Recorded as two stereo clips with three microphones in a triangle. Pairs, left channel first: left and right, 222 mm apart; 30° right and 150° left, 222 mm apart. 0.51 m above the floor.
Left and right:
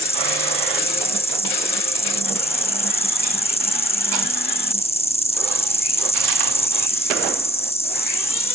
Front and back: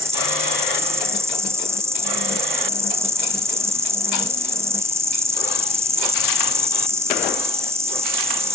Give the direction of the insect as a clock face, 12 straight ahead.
9 o'clock.